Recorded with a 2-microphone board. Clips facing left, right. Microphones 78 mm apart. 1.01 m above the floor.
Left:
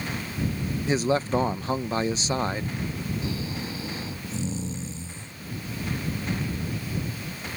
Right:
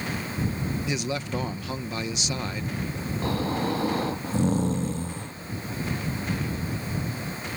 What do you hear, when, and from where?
0.9 s a man speaking: 35° left (ahead or behind)
3.2 s snoring: 55° right (ahead or behind)